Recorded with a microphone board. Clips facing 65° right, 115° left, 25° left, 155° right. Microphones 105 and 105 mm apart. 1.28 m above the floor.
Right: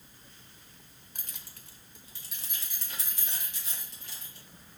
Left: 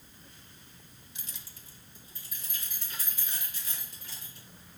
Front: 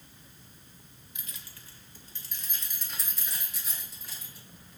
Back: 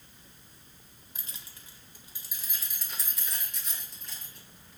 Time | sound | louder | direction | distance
1.1 | keys jangling | right 1 dB, even | 105° right | 0.7 m